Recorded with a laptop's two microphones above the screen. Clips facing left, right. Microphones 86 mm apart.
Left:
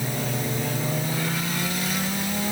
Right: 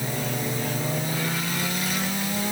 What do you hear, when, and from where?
Only background noise.